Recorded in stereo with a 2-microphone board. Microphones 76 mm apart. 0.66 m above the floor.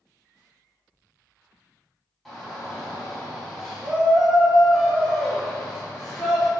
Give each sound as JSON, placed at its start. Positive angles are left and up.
{"t": 2.2, "sound": "a shout", "side_deg": 0, "distance_m": 1.6}